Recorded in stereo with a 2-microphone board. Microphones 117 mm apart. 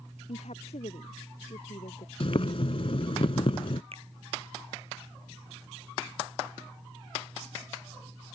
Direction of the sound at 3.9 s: 55° right (ahead or behind).